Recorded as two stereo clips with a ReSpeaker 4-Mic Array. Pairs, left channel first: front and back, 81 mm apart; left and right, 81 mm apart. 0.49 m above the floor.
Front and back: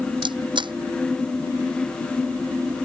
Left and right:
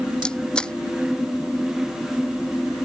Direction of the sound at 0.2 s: 170° left.